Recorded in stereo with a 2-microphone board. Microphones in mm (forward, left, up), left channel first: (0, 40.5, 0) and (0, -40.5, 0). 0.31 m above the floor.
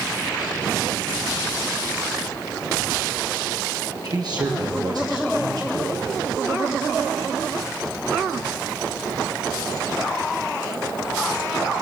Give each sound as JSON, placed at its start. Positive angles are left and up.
{"t": 4.0, "sound": "a man speaking", "side_deg": -55, "distance_m": 6.5}